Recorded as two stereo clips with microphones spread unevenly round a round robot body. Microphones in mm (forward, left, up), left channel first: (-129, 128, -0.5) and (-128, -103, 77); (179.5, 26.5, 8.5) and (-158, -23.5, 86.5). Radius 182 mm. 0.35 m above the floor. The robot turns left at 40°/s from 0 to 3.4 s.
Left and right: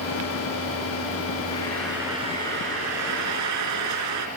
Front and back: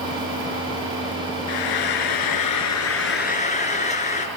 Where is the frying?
15° left, 3 m; by 4.3 s 60° right, 3 m.